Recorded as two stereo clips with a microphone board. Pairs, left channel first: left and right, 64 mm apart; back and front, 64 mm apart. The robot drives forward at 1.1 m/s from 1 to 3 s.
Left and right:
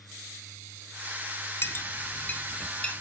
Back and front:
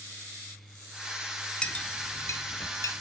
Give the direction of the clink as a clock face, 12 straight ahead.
8 o'clock.